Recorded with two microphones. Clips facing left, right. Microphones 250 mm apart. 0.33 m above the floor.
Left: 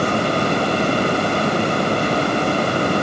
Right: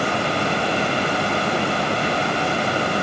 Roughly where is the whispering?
I don't hear whispering.